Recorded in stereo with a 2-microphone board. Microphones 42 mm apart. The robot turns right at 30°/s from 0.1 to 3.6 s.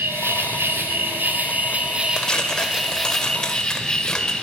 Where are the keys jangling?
I don't hear keys jangling.